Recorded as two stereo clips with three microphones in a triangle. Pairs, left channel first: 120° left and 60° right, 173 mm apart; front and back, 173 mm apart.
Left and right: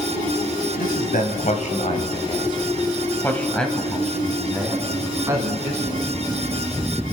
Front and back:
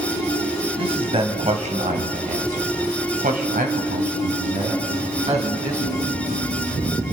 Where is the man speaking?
130° left, 2 m; by 6.1 s 125° right, 3.5 m.